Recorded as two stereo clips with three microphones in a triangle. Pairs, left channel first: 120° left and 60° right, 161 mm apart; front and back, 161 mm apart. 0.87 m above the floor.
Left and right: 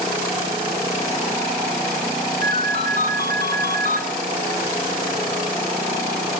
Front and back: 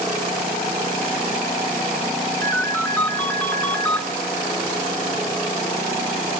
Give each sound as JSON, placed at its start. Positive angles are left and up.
{"t": 2.4, "sound": "a ringtone", "azimuth_deg": -80, "distance_m": 0.7}